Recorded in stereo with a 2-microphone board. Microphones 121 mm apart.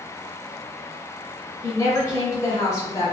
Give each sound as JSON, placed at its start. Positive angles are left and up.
{"t": 1.6, "sound": "a woman speaking", "side_deg": 25, "distance_m": 1.4}